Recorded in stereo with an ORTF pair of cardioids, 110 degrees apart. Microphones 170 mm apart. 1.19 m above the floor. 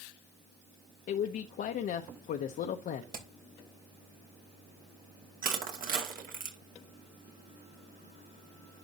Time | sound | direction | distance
1.1 | a man speaking | 60° left | 0.8 m
3.1 | hammering | 60° right | 2.5 m
5.4 | crushing | 55° right | 2.5 m